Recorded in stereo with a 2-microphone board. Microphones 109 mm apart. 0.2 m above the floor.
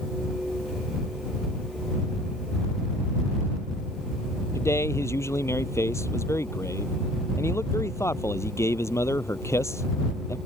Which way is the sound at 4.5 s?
25° left (ahead or behind).